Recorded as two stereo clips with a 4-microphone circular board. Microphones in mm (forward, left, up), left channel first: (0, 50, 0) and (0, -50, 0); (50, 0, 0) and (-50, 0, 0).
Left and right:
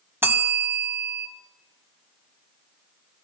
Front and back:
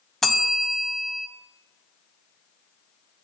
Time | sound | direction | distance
0.2 | a bell | 80° right | 0.6 m